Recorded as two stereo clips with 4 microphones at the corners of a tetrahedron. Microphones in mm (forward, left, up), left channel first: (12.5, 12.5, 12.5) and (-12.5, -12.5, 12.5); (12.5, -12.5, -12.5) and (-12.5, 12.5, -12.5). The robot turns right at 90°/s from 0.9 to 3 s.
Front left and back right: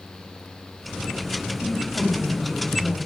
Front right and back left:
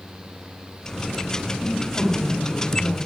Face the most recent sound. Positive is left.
turn(degrees=5)